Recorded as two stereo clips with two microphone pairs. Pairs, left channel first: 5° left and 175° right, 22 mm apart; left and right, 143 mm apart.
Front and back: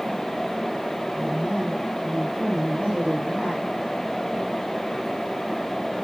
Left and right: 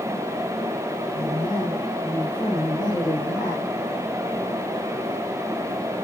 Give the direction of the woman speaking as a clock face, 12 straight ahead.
7 o'clock.